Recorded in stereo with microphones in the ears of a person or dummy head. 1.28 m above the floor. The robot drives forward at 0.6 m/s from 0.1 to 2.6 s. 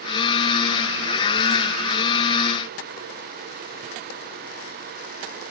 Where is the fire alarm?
I don't hear a fire alarm.